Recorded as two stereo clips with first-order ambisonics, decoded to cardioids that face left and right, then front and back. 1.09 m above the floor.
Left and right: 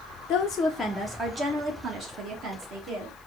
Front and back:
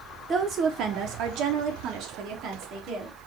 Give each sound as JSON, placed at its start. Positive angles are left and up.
{"t": 0.3, "sound": "a woman speaking", "azimuth_deg": 115, "distance_m": 0.5}